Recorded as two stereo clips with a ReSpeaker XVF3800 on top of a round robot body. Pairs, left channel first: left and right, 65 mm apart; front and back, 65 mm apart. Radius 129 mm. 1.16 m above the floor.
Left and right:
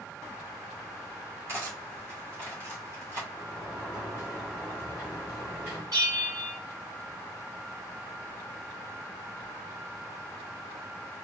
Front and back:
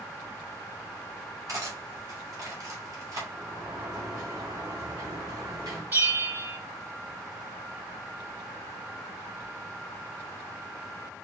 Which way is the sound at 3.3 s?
155° right.